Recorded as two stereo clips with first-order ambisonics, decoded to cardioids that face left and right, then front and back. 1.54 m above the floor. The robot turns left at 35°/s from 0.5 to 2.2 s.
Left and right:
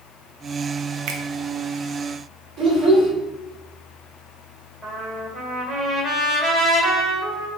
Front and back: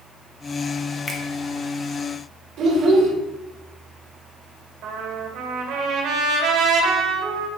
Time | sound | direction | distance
1.1 | a finger snap | 70° right | 0.8 m
2.6 | a child speaking | 140° right | 2.5 m
4.8 | a trumpet | 160° right | 2.5 m